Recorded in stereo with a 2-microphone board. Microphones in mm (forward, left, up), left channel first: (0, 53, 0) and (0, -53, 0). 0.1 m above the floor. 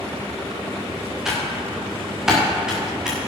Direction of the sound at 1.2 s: 5° right (ahead or behind).